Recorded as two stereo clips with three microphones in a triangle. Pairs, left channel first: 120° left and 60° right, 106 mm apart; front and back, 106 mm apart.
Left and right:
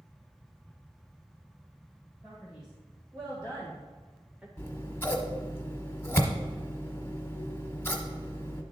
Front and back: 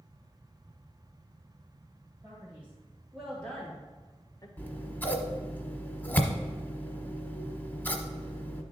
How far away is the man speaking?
About 3 m.